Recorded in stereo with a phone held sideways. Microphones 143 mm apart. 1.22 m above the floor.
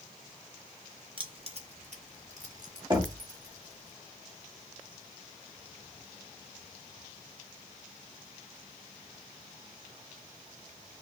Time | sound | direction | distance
1.2 | keys jangling | 35° right (ahead or behind) | 1.2 m
2.9 | knocking | 30° right (ahead or behind) | 1.5 m